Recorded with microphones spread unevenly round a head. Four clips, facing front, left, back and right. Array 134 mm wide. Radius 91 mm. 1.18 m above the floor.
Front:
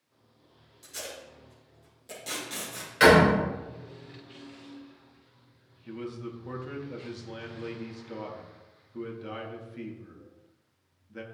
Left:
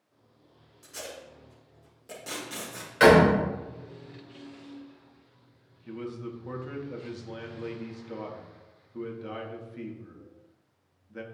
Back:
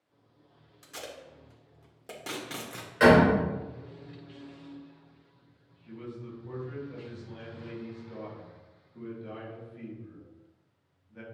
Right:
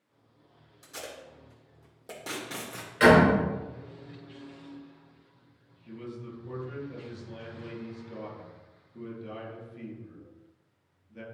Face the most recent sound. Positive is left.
turn(degrees=30)